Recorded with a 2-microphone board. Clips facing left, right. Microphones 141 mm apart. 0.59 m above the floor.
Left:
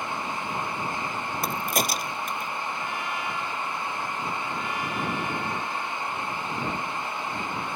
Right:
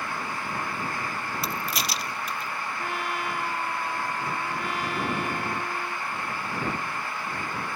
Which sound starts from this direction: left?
A crack, at 1.4 s.